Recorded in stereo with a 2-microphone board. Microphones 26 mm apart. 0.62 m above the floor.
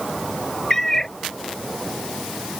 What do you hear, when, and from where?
0.7 s a cat meowing: 15° left (ahead or behind)